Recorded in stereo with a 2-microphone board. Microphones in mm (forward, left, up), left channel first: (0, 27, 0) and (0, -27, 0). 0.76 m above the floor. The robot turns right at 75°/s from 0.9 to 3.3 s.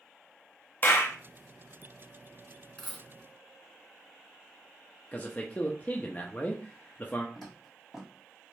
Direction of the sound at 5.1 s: 30° left (ahead or behind).